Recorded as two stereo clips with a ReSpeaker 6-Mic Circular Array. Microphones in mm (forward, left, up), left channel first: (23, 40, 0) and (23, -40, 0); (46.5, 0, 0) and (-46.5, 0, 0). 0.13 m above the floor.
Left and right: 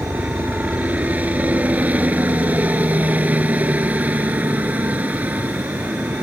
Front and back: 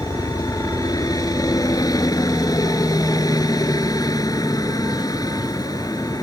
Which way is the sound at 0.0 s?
25° right.